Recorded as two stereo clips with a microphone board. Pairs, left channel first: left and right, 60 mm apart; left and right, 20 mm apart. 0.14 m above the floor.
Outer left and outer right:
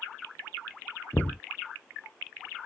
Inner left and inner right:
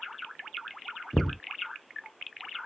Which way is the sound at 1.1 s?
30° left (ahead or behind).